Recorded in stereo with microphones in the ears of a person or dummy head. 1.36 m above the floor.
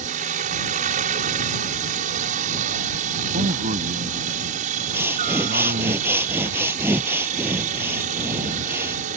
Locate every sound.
0.0 s a helicopter: 50° right (ahead or behind)
3.3 s a man speaking: 50° right (ahead or behind)
4.9 s breathing: 5° right (ahead or behind)